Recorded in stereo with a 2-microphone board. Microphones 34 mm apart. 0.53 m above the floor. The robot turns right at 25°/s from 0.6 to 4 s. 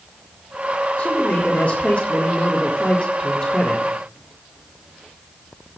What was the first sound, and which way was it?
A man speaking, 75° left.